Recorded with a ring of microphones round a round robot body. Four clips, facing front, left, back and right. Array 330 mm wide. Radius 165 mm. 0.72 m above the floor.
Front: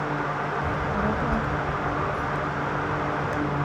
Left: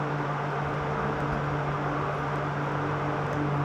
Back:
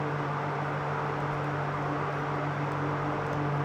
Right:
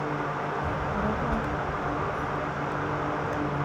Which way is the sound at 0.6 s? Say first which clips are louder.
Right 1 dB, front 6 dB; 30° right.